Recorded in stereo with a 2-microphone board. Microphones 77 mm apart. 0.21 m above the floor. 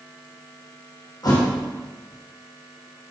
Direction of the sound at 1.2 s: 60° left (ahead or behind).